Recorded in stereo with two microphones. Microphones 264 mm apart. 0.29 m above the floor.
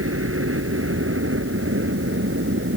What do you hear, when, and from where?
0.0 s a helicopter: 55° right (ahead or behind); by 2.8 s 50° right (ahead or behind)